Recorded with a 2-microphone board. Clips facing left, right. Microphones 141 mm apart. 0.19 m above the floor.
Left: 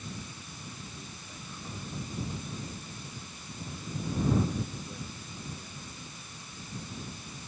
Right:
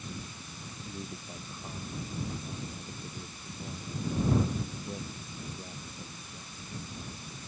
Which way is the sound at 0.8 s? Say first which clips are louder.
Right 5 dB; 30° right (ahead or behind).